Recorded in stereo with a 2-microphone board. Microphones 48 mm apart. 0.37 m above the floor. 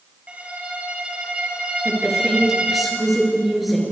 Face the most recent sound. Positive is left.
turn(degrees=0)  # may be behind; listen again after turning